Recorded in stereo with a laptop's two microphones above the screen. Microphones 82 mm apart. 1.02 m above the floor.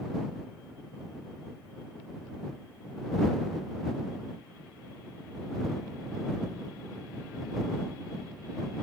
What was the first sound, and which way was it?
Only background noise.